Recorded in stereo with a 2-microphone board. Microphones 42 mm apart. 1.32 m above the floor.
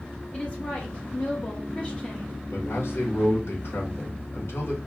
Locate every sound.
0.3 s a woman speaking: 30° left (ahead or behind), 0.9 m
2.5 s a man speaking: 85° left, 1.7 m